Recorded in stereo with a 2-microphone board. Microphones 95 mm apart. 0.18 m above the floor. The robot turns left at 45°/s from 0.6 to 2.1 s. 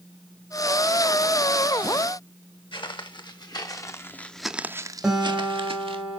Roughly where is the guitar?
Centre.